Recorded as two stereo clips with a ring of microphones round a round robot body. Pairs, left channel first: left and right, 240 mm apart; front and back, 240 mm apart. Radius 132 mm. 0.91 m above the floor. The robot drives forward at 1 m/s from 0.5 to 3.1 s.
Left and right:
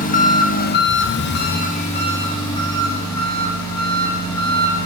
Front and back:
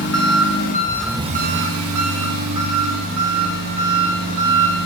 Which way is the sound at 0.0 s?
35° left.